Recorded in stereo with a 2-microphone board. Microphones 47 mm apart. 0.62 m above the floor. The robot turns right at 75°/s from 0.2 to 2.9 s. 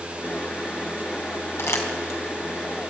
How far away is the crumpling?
About 3.5 m.